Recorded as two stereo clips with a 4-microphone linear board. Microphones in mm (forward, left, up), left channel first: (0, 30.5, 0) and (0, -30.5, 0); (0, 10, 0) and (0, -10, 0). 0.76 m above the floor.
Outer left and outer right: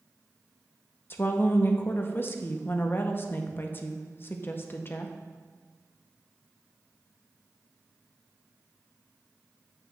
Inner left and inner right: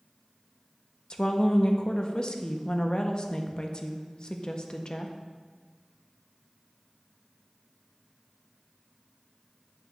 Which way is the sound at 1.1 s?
35° left (ahead or behind).